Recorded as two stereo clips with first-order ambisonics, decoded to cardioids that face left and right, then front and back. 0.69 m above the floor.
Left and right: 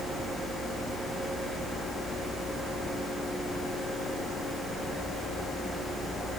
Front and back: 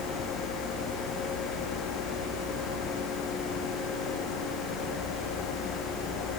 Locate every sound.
Only background noise.